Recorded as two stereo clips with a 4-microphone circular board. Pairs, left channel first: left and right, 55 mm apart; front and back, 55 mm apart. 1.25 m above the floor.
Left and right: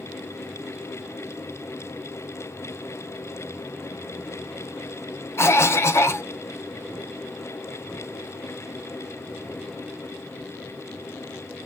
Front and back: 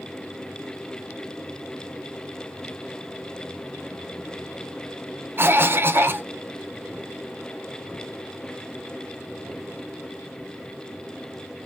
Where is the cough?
130° left, 0.6 m.